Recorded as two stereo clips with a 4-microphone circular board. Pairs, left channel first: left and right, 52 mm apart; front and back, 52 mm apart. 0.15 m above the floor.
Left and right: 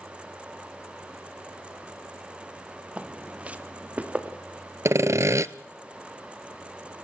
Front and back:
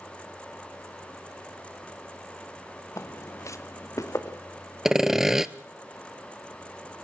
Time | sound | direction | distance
3.0 | footsteps | 25° right | 1.5 m
4.8 | sawing | 100° right | 0.6 m